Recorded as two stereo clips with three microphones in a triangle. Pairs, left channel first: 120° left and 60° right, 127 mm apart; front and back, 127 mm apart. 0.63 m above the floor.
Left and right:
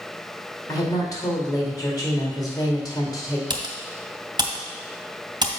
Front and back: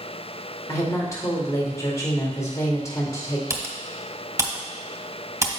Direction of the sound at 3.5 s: 115° right.